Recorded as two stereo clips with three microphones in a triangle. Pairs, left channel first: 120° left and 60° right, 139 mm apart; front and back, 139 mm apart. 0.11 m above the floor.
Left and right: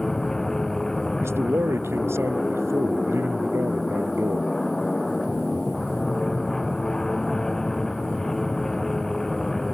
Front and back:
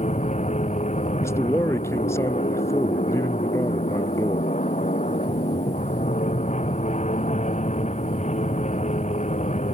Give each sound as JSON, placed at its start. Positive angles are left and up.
{"t": 0.0, "sound": "an aircraft", "azimuth_deg": 35}
{"t": 1.2, "sound": "a man speaking", "azimuth_deg": -25}